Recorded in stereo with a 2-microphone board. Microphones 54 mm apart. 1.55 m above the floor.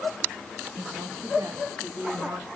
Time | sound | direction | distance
0.8 | a woman speaking | 75° right (ahead or behind) | 1.4 m